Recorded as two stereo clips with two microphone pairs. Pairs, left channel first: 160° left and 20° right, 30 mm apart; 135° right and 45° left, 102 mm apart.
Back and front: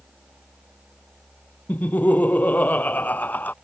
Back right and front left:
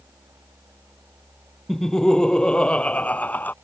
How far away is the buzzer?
I don't hear a buzzer.